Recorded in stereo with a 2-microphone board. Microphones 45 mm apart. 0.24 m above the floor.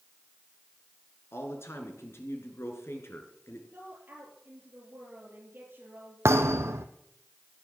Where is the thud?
80° right, 1.3 m.